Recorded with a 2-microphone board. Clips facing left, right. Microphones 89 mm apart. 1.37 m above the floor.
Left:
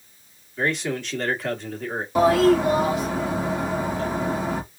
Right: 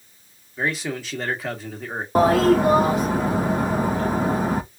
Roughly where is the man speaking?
Centre.